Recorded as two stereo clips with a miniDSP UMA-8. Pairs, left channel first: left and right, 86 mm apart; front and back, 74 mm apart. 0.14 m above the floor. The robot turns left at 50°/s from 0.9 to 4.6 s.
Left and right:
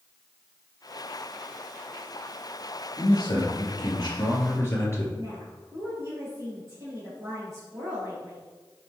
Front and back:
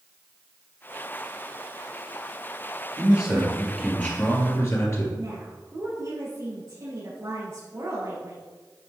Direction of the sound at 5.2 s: 140° right.